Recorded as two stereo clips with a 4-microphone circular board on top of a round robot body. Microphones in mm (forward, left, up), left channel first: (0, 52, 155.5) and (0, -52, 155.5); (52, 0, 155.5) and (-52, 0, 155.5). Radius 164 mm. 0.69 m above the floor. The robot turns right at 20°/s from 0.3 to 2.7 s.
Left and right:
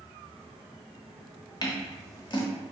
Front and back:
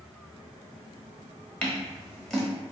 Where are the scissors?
70° left, 1.3 m; by 2.4 s 85° left, 1.3 m.